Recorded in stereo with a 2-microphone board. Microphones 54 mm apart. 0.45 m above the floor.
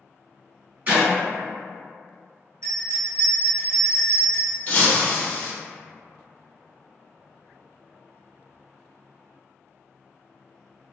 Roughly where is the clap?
Right.